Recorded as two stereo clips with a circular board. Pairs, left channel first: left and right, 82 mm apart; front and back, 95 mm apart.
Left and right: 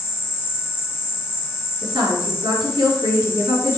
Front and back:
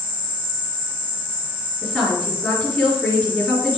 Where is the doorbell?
I don't hear a doorbell.